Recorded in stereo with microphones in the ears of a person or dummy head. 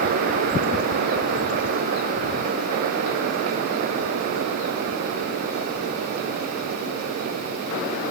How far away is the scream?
No scream in this recording.